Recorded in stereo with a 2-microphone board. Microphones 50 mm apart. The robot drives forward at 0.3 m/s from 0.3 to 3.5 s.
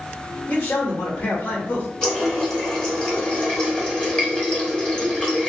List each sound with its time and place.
0.5 s a man speaking: 35° left (ahead or behind), 1.2 m; by 1.9 s 40° left (ahead or behind), 1.1 m
2.0 s a running tap: 15° left (ahead or behind), 1.3 m; by 5.5 s 20° left (ahead or behind), 0.9 m